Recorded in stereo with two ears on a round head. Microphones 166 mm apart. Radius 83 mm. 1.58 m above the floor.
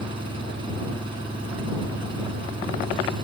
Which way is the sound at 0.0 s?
25° right (ahead or behind).